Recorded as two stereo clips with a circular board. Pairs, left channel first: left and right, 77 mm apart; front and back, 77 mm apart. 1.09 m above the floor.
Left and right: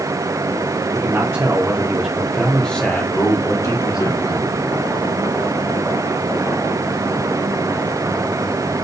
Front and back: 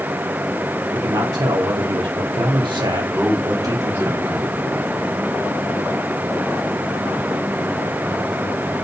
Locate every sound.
0.9 s a man speaking: 135° right, 2.5 m; by 4.1 s 130° left, 3 m
3.1 s a man speaking: 115° left, 5 m